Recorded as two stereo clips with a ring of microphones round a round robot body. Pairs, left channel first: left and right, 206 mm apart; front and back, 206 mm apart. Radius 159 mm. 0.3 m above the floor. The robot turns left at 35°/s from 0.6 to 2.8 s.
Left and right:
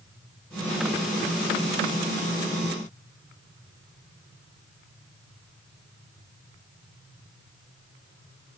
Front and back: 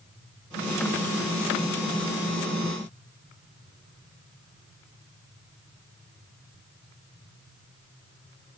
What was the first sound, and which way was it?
Only background noise.